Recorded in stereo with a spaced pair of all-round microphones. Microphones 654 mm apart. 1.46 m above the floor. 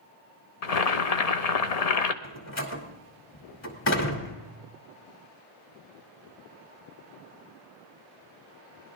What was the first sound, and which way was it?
Boiling, 65° left (ahead or behind).